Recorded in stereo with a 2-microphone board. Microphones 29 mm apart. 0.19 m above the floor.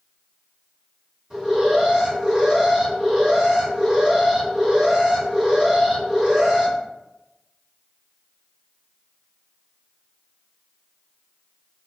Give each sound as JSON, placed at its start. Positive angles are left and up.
{"t": 1.3, "sound": "an alarm", "side_deg": -30, "distance_m": 1.8}